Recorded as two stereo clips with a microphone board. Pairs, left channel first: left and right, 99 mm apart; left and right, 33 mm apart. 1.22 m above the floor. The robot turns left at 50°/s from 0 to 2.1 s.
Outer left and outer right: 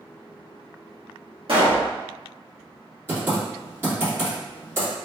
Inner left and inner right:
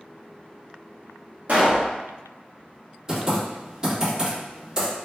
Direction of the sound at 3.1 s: 25° right (ahead or behind).